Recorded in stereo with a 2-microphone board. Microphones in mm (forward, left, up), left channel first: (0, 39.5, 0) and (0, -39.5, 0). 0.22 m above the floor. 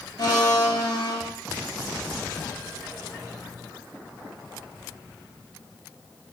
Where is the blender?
55° left (ahead or behind), 0.9 m.